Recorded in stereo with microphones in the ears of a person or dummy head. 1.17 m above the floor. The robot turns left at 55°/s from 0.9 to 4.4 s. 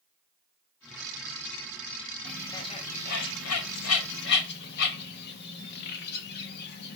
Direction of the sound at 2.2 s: 5° left (ahead or behind).